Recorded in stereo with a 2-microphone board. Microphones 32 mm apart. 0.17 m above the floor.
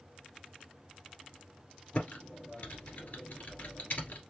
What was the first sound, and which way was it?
Typing on a keyboard, 55° left (ahead or behind).